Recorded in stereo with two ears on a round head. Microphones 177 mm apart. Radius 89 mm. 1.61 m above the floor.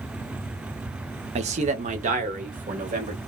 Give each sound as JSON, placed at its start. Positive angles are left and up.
{"t": 1.4, "sound": "a man speaking", "side_deg": -35, "distance_m": 0.6}